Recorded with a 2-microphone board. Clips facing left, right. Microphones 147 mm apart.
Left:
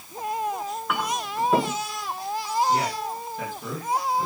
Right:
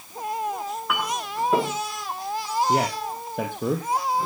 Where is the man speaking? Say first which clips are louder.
Right 1 dB; 65° right (ahead or behind), 4 m.